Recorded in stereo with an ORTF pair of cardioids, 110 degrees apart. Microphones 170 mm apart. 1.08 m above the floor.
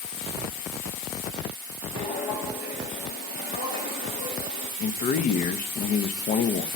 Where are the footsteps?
65° left, 5.5 m.